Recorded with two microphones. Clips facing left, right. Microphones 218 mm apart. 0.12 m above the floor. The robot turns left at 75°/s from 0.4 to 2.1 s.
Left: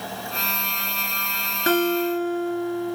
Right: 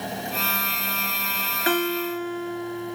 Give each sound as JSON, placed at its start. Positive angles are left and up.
{"t": 1.7, "sound": "a guitar", "azimuth_deg": 100, "distance_m": 1.9}